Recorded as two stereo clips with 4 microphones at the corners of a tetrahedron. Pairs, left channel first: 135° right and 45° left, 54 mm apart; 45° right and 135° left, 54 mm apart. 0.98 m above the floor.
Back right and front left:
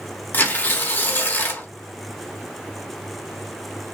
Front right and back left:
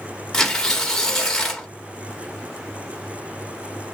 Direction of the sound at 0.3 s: 110° right.